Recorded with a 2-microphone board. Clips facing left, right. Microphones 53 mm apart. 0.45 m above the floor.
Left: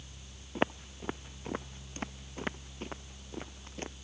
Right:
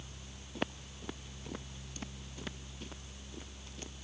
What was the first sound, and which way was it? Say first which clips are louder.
Footsteps: left 7 dB; 30° left (ahead or behind).